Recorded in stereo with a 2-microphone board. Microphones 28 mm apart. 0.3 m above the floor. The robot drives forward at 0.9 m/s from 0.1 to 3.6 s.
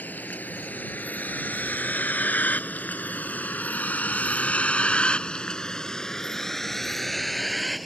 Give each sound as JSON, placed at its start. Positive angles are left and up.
{"t": 0.0, "sound": "a vehicle", "side_deg": 80}